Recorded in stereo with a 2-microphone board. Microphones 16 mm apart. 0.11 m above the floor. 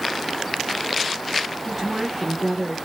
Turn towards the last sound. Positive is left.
turn(degrees=-25)  # may be behind; listen again after turning